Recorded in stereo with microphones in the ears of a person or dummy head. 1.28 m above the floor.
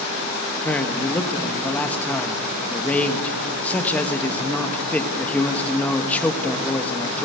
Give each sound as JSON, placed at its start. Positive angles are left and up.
{"t": 0.7, "sound": "a man speaking", "side_deg": 10, "distance_m": 1.2}